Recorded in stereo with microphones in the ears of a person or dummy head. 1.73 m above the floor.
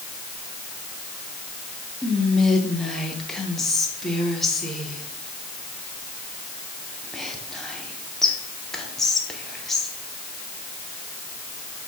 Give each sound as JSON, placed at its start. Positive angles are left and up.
{"t": 2.0, "sound": "whispering", "side_deg": 5, "distance_m": 0.8}